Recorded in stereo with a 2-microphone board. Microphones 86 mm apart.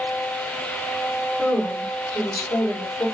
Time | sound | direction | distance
1.4 | a woman speaking | 35° left (ahead or behind) | 3.5 m